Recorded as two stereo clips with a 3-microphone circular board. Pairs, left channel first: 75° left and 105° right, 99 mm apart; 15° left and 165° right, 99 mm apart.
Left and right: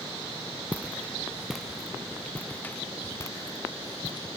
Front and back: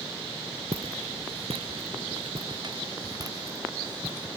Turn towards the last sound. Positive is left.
turn(degrees=120)